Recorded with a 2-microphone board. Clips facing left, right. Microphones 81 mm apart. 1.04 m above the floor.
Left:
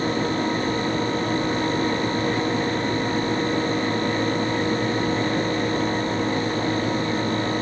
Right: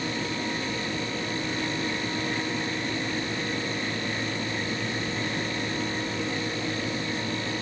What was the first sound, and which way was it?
Only background noise.